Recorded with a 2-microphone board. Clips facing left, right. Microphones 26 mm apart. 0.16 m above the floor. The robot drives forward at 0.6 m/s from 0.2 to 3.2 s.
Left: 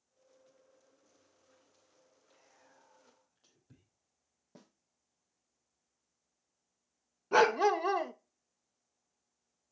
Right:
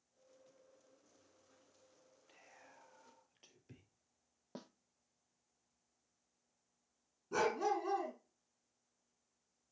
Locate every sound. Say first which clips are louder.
2.3 s whispering: right 4 dB; 70° right (ahead or behind), 3.5 m
4.5 s a snare drum: right 7 dB; 40° right (ahead or behind), 1.0 m
7.3 s a dog barking: left 9 dB; 50° left (ahead or behind), 0.7 m